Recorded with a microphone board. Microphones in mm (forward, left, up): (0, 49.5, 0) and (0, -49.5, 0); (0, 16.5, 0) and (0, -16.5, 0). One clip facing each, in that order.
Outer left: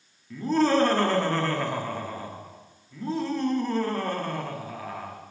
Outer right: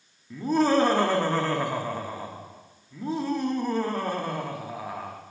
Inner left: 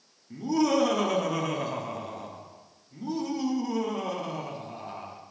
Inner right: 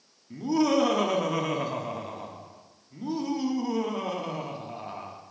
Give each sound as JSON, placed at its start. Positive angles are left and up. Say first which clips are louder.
{"t": 0.3, "sound": "laughter", "louder": "even, inner right 1 dB", "side_deg": -15, "distance_m": 0.9}